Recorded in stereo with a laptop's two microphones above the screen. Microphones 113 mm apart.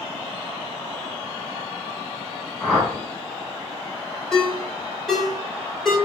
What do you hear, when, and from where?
2.6 s a whoosh: centre (ahead or behind), 1.8 m
4.3 s a ringtone: 5° left (ahead or behind), 1.3 m